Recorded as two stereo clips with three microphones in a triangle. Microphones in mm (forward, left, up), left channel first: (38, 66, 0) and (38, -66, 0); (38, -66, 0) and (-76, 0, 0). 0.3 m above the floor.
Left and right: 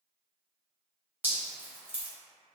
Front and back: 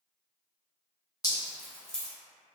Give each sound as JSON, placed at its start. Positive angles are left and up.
{"t": 1.2, "sound": "dripping", "azimuth_deg": -30, "distance_m": 0.9}